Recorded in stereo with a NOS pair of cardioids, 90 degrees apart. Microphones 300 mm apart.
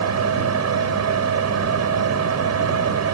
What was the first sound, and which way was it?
A fan, 55° right.